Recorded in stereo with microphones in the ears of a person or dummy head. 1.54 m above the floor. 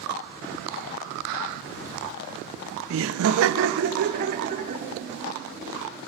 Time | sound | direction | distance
2.9 | laughter | 75° right (ahead or behind) | 0.9 m